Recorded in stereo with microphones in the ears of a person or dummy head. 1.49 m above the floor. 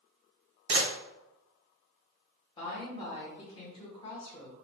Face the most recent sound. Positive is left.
turn(degrees=30)  # may be behind; listen again after turning